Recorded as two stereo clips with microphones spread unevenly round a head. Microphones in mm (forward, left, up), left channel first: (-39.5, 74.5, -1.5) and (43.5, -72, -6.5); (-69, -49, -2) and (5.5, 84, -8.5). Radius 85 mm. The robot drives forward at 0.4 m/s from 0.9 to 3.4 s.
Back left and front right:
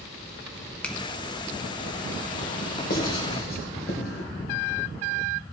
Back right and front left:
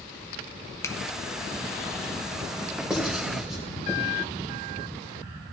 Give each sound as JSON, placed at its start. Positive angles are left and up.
{"t": 0.8, "sound": "a finger snap", "azimuth_deg": -165, "distance_m": 0.9}
{"t": 2.9, "sound": "writing", "azimuth_deg": 145, "distance_m": 3.0}